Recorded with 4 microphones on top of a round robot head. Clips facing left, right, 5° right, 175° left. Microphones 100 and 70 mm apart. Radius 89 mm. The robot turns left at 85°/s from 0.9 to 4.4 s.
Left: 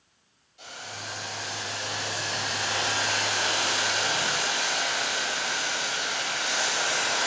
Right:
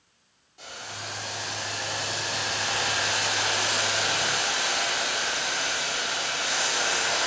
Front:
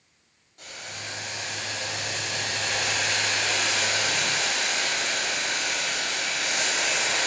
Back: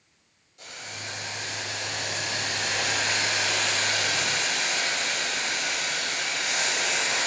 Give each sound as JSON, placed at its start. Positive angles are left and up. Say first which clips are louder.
{"t": 0.6, "sound": "boiling", "louder": "right 1 dB, even", "azimuth_deg": -45, "distance_m": 1.5}